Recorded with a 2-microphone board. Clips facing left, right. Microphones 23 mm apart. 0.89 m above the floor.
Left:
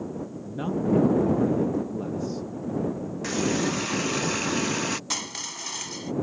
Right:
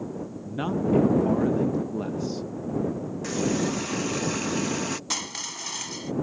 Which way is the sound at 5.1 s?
Centre (ahead or behind).